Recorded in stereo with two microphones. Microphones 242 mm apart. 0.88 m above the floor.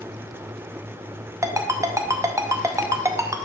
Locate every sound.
1.4 s a ringtone: 10° right (ahead or behind), 0.6 m